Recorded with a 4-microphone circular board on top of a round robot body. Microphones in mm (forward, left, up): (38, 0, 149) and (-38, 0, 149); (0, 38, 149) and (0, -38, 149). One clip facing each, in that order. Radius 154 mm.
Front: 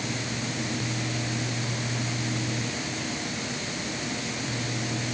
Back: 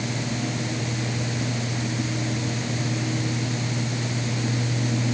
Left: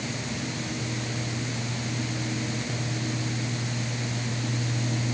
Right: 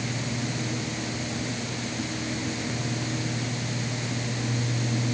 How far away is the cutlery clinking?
No cutlery clinking in this recording.